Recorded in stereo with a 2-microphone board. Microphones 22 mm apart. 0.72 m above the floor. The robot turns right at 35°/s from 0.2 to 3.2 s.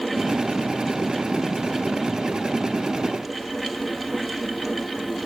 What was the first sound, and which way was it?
Only background noise.